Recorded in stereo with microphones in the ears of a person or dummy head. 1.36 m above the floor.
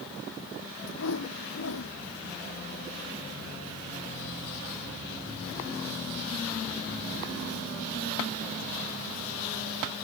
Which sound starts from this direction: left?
A whoosh, at 0.9 s.